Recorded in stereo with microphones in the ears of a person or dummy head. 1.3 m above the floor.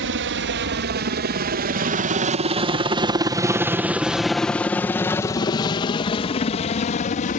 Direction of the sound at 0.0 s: 55° right (ahead or behind).